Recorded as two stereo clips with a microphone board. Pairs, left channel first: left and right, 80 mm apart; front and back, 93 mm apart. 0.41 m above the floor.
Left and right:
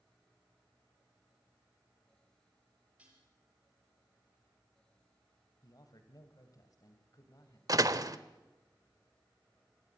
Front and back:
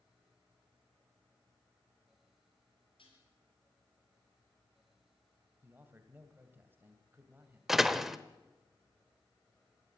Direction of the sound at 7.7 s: 95° right.